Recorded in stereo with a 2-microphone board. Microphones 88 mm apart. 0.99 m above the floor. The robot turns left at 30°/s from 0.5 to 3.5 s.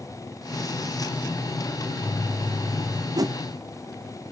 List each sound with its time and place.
1.8 s a microwave: straight behind, 5.5 m; by 3.0 s 140° left, 5.5 m
3.1 s a whoosh: 45° right (ahead or behind), 0.5 m; by 3.4 s 40° right (ahead or behind), 0.5 m